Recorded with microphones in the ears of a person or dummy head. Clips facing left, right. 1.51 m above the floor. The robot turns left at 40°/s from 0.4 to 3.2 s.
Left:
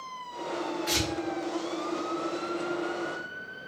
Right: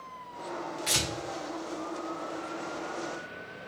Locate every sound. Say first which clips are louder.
0.9 s tearing paper: left 4 dB; 45° right (ahead or behind), 1.3 m; by 1.1 s 35° right (ahead or behind), 1.3 m